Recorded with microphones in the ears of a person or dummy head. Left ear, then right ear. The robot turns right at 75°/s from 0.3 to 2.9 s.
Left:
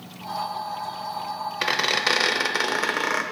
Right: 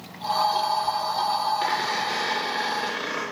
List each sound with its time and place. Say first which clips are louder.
1.6 s a squeak: left 3 dB; 30° left, 0.8 m; by 3.2 s 130° left, 0.8 m